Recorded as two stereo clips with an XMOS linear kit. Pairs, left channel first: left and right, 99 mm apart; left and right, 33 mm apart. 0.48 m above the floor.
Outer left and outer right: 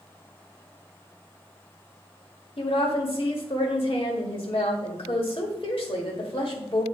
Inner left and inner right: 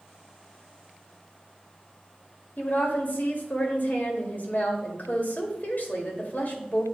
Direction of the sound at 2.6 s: 60° left (ahead or behind).